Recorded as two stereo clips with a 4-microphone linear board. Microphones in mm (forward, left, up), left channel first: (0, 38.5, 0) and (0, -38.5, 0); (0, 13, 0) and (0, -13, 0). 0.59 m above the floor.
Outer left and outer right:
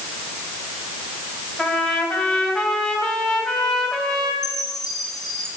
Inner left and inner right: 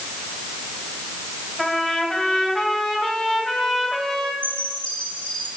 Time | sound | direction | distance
1.6 | a trumpet | 10° left (ahead or behind) | 3 m
4.4 | a chime | 50° left (ahead or behind) | 7 m